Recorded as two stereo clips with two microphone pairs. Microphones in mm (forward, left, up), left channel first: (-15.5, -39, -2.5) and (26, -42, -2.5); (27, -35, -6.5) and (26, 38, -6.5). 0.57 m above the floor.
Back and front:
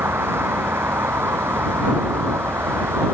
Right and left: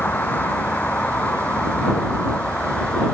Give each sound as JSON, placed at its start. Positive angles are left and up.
{"t": 0.0, "sound": "a vehicle", "azimuth_deg": -20}